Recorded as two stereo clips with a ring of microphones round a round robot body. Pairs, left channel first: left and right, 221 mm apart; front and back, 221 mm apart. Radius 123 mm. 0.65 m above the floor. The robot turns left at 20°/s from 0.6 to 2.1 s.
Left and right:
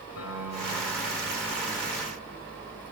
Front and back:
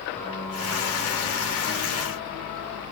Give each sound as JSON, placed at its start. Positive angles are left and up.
{"t": 0.1, "sound": "a piano", "azimuth_deg": 80, "distance_m": 4.0}